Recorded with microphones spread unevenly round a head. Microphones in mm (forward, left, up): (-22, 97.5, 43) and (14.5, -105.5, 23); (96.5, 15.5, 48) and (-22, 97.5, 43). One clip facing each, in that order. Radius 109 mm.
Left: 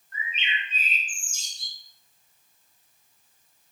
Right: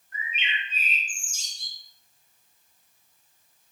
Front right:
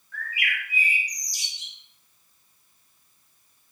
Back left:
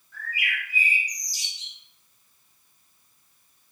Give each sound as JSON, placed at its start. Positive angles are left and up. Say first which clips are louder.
{"t": 0.1, "sound": "a bird", "louder": "left 1 dB, front right 1 dB", "azimuth_deg": 0, "distance_m": 5.5}